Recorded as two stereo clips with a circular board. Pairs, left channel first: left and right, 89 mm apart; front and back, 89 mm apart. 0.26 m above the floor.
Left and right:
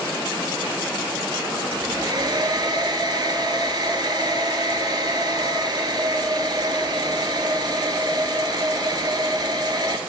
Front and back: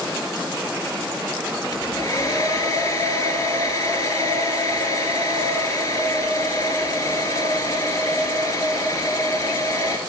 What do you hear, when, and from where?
1.7 s a hair dryer: 45° right, 2.5 m